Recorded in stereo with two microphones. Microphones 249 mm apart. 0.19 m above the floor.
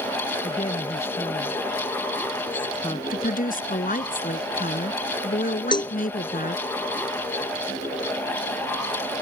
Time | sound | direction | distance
0.4 | a woman speaking | 25° left (ahead or behind) | ?
3.1 | a woman speaking | 35° left (ahead or behind) | ?
5.7 | a cowbell | 20° left (ahead or behind) | ?